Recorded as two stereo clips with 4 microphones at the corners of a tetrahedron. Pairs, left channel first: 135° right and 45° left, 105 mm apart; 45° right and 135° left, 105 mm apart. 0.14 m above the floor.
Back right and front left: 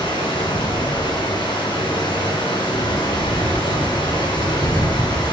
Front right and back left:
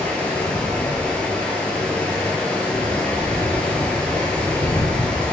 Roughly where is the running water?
Behind right.